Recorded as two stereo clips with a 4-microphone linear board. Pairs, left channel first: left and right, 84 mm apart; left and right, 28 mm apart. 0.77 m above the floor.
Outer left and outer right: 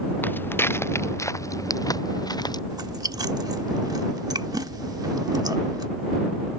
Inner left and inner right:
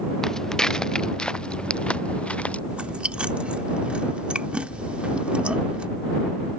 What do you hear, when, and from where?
0.2 s footsteps: 25° left (ahead or behind); by 2.6 s 55° left (ahead or behind)
2.7 s chewing: 50° right (ahead or behind)